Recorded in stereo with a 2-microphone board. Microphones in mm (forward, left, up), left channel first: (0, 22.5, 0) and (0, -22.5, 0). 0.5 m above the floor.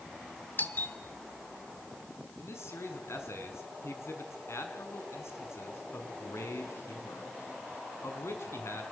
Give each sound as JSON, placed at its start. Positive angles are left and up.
{"t": 0.6, "sound": "a doorbell", "side_deg": 45, "distance_m": 1.6}
{"t": 2.4, "sound": "a man speaking", "side_deg": 75, "distance_m": 5.5}